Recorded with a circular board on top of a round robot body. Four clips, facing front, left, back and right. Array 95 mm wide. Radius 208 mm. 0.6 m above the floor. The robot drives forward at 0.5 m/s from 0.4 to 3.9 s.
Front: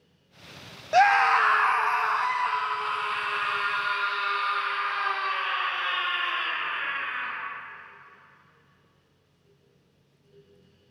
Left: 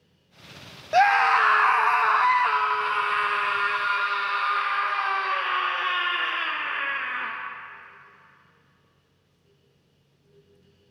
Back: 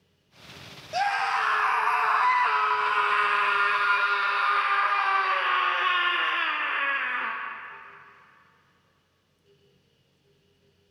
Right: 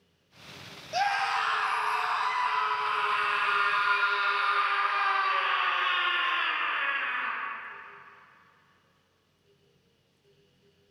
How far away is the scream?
About 0.9 m.